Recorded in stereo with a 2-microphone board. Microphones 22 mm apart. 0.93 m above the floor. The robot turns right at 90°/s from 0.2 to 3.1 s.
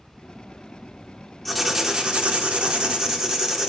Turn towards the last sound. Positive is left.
turn(degrees=-35)